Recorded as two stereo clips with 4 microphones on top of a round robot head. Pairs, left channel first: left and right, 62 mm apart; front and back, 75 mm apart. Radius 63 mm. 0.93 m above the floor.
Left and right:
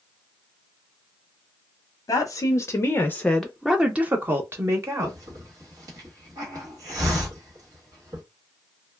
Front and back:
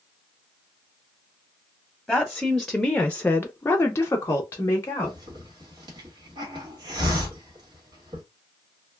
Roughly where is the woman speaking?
Left.